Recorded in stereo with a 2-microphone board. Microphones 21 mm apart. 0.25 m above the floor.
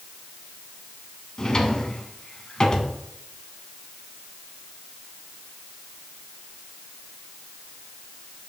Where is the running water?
I don't hear running water.